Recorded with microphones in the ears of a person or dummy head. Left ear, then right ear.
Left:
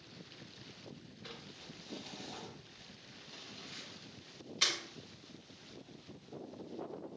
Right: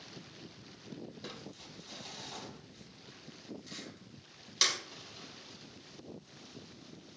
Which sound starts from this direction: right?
Crumpling, at 1.2 s.